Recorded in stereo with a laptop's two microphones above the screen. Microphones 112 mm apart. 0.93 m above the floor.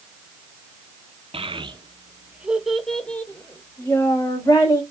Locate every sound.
1.3 s a child speaking: 55° right (ahead or behind), 0.8 m; by 4.8 s 35° left (ahead or behind), 1.9 m